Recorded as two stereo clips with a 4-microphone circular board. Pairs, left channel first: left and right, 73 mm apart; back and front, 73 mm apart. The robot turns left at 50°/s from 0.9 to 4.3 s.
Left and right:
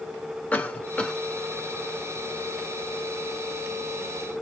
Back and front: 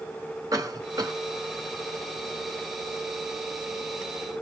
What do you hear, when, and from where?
0.5 s a cough: 25° left, 1.4 m; by 1.1 s 10° left, 1.4 m